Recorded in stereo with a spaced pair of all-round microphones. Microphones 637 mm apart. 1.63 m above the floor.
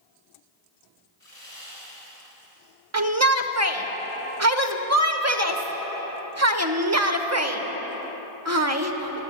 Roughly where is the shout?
Right.